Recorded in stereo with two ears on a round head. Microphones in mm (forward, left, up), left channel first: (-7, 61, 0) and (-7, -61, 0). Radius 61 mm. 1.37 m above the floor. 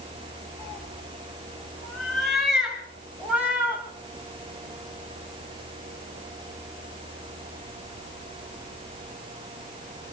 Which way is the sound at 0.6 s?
10° left (ahead or behind).